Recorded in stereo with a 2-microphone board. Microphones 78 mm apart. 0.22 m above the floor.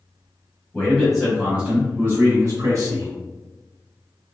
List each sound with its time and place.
0.7 s a man speaking: 10° left (ahead or behind), 1.1 m; by 3.1 s 50° right (ahead or behind), 1.5 m